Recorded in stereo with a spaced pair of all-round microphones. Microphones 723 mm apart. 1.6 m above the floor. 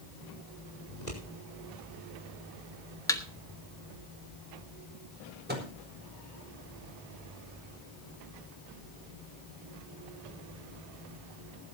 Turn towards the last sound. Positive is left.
turn(degrees=-15)  # may be behind; listen again after turning